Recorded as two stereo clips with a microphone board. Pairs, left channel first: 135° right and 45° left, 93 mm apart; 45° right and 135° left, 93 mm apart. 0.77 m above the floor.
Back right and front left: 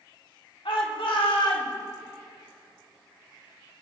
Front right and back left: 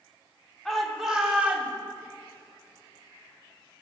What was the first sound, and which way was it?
A shout, 135° right.